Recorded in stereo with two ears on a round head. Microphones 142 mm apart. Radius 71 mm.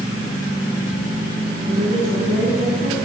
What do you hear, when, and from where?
1.7 s a woman speaking: 60° right (ahead or behind), 6 m